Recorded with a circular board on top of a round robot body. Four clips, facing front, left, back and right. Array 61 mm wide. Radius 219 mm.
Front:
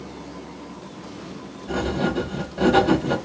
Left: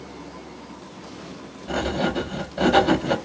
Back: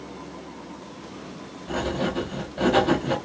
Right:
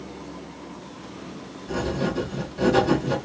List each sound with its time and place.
1.7 s writing: 100° left, 1.6 m